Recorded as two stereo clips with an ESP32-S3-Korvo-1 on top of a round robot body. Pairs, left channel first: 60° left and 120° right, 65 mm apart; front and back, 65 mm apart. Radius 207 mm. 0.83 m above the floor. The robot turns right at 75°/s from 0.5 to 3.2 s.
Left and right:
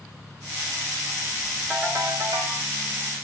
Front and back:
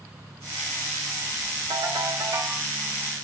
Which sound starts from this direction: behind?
A ringtone, at 1.7 s.